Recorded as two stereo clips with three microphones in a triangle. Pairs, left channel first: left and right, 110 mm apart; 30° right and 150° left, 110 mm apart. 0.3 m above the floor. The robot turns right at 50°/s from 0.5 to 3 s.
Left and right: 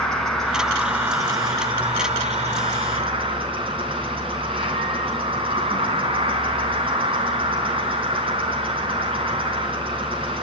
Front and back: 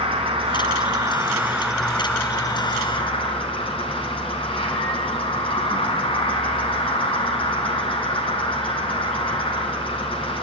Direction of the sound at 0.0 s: 175° left.